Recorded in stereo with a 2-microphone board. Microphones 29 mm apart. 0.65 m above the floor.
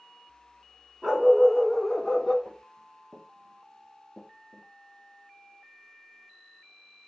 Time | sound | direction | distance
1.0 | a dog barking | 10° left (ahead or behind) | 1.4 m
2.5 | footsteps | 30° right (ahead or behind) | 1.1 m